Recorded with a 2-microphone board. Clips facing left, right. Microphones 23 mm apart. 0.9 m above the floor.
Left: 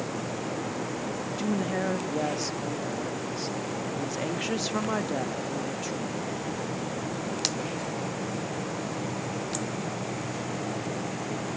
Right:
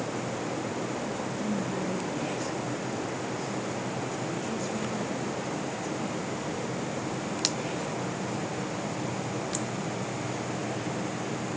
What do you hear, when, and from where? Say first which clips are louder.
1.4 s a woman speaking: left 5 dB; 55° left (ahead or behind), 1.0 m